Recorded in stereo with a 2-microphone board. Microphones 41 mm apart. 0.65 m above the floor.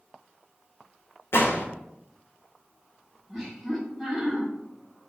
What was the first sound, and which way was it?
A gunshot, 75° left (ahead or behind).